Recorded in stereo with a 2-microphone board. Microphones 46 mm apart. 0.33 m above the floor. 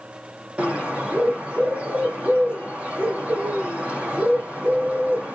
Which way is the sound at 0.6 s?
25° right (ahead or behind).